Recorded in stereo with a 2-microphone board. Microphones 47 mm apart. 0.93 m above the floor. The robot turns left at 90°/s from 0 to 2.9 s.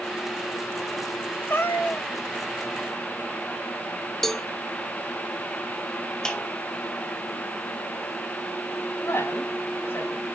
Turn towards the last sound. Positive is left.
turn(degrees=65)  # may be behind; listen again after turning